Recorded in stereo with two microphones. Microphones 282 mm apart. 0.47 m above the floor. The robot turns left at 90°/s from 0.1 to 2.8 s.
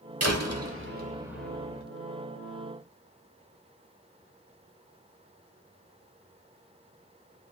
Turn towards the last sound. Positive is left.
turn(degrees=55)